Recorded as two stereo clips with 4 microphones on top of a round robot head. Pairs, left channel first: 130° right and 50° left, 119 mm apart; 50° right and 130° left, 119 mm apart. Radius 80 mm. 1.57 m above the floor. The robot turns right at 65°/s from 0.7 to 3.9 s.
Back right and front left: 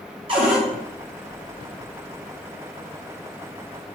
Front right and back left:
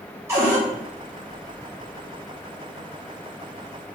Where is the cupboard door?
70° left, 0.7 m.